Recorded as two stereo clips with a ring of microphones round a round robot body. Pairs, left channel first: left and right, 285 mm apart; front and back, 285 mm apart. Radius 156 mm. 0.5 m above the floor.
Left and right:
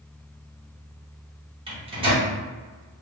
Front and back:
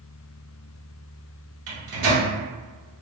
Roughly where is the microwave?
Behind.